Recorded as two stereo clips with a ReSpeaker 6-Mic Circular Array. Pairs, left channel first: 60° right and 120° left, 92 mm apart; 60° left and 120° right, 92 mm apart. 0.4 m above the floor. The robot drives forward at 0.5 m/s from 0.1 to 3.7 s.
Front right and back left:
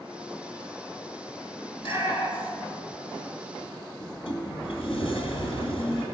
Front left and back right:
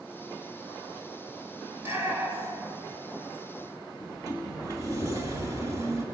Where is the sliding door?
70° right, 1.9 m.